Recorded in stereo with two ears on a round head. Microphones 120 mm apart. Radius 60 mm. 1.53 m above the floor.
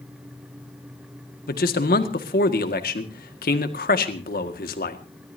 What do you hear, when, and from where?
1.5 s a man speaking: 75° left (ahead or behind), 1.9 m